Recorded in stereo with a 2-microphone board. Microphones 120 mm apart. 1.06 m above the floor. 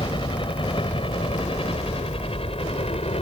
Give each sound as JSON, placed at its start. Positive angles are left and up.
{"t": 0.0, "sound": "a helicopter", "side_deg": 45}